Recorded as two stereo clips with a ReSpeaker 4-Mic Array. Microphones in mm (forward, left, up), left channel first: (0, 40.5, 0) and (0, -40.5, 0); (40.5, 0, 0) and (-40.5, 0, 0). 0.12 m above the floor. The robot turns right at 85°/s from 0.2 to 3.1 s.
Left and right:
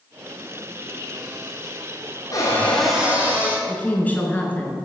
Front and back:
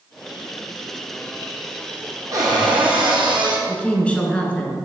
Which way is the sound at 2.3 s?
130° left.